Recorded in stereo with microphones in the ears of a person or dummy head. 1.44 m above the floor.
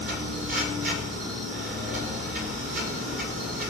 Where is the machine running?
50° right (ahead or behind), 1.8 m.